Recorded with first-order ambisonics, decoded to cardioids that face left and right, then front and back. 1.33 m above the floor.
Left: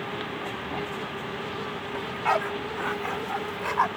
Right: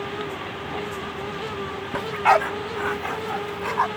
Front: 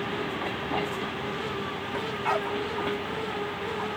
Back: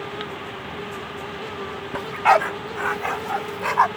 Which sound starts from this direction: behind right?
A dog barking, at 1.9 s.